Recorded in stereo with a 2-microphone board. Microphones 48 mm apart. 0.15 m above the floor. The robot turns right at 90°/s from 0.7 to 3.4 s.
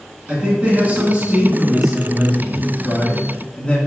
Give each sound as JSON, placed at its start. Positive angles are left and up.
{"t": 0.3, "sound": "a man speaking", "side_deg": -25, "distance_m": 1.4}